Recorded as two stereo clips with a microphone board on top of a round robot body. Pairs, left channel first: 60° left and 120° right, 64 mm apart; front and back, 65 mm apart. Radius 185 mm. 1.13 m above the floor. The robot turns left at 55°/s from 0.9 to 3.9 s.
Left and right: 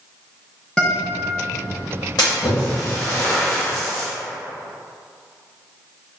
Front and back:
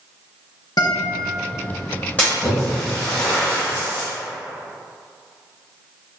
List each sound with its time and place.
0.8 s a guitar: 20° right, 0.6 m; by 1.2 s 35° right, 0.6 m
2.2 s a splash: 65° left, 0.8 m; by 4.1 s 30° right, 0.8 m